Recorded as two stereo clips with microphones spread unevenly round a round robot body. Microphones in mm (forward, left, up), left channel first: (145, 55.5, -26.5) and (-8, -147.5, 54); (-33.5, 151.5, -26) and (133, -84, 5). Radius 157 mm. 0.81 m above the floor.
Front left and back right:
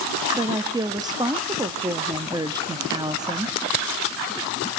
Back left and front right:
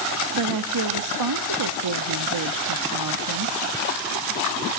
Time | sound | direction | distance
0.3 | a woman speaking | 45° right | 1.2 m